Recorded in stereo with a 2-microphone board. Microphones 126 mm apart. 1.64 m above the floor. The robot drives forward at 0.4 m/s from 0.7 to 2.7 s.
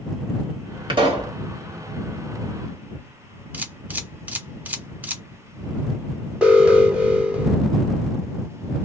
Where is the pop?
40° right (ahead or behind), 1.4 m.